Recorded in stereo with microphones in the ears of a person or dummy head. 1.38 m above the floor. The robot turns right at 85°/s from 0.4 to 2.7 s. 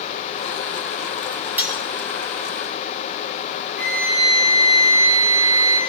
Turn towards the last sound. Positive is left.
turn(degrees=-55)  # may be behind; listen again after turning